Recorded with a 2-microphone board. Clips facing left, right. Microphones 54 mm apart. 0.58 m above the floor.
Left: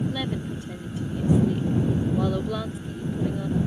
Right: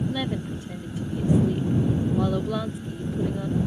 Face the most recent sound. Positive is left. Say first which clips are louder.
# right 1 dB
turn(degrees=-5)  # may be behind; listen again after turning